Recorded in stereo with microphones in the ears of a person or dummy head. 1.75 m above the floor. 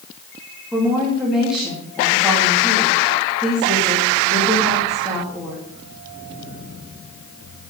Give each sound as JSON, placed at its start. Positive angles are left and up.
{"t": 0.7, "sound": "a woman speaking", "side_deg": -5, "distance_m": 3.0}